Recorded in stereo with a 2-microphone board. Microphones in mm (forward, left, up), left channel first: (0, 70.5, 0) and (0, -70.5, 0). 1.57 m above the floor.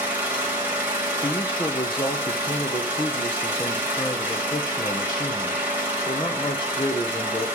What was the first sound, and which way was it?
An engine running, 15° right (ahead or behind).